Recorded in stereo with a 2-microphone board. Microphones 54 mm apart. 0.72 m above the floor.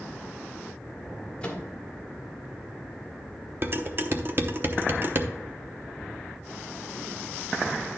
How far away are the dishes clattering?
About 0.8 m.